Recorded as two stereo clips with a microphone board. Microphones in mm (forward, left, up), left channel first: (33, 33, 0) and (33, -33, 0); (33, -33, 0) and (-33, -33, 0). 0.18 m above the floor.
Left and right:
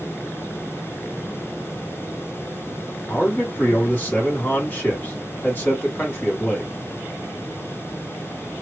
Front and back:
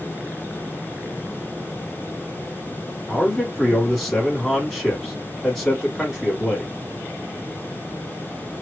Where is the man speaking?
80° left, 1.4 m.